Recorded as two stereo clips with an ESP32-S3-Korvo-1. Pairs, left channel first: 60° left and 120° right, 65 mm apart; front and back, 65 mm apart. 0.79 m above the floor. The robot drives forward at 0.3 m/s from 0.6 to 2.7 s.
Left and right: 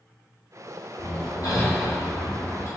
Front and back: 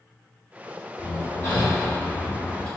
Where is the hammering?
40° left, 1.3 m; by 2.7 s 65° left, 1.1 m.